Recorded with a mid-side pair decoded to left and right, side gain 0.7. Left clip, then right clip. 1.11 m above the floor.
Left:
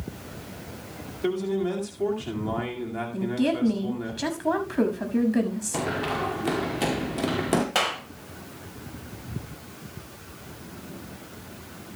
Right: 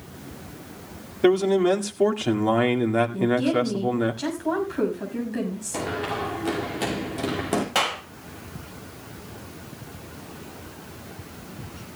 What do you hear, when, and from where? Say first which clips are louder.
1.2 s a man speaking: right 8 dB; 45° right, 2 m
3.1 s a woman speaking: right 4 dB; 20° left, 6 m
5.7 s running footsteps: even; 10° left, 4.5 m
7.8 s a clap: right 4 dB; straight ahead, 4.5 m